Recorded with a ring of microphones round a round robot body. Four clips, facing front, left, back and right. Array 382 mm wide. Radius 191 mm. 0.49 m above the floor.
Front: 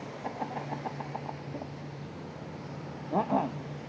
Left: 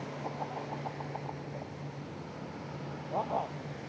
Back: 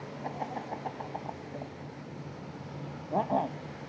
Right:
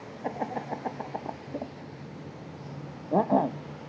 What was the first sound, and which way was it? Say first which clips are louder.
Laughter: right 8 dB, front 1 dB; 80° right.